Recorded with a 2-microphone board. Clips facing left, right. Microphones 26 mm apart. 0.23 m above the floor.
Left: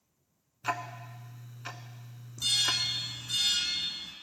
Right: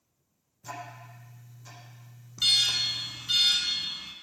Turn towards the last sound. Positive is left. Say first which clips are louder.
# right 4 dB
turn(degrees=-40)  # may be behind; listen again after turning